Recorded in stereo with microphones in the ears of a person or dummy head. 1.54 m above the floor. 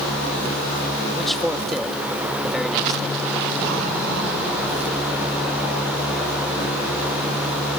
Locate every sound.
1.1 s a man speaking: centre (ahead or behind)